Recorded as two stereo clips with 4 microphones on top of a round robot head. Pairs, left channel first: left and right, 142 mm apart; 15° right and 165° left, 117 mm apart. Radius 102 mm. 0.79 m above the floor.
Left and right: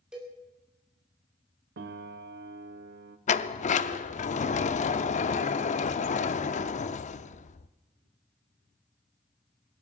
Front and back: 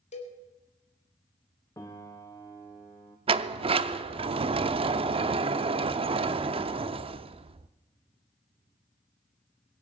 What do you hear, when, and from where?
0.1 s a cowbell: 5° right, 2.5 m
1.8 s a piano: 90° right, 0.7 m
3.3 s a sliding door: 125° left, 0.6 m